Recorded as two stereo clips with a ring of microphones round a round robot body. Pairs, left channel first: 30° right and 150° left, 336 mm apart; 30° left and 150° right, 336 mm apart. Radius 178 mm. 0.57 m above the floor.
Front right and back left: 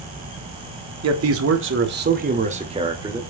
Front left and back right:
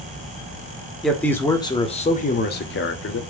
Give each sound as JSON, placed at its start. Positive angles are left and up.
{"t": 1.0, "sound": "a man speaking", "azimuth_deg": 120, "distance_m": 1.7}